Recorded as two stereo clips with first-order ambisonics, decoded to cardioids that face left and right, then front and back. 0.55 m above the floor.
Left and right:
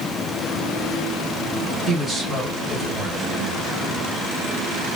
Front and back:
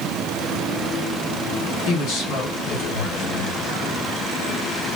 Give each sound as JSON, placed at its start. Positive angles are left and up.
{"t": 1.9, "sound": "a man speaking", "azimuth_deg": -5, "distance_m": 2.5}